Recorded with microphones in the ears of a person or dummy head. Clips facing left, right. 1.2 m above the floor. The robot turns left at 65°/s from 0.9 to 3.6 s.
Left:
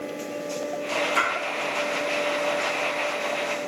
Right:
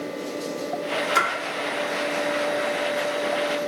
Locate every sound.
1.1 s a splash: 85° right, 1.1 m; by 1.3 s 80° right, 1.1 m